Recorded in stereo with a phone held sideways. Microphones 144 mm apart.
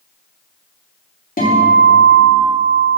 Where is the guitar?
80° left, 1.9 m.